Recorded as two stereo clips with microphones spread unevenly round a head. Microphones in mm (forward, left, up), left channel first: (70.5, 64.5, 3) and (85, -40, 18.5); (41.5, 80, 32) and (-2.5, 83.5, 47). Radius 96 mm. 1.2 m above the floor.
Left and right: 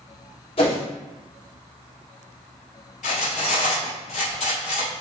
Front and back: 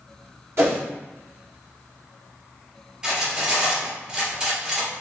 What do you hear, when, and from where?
0.6 s a whoosh: 145° left, 1.8 m
3.0 s cutlery clinking: 110° left, 2.5 m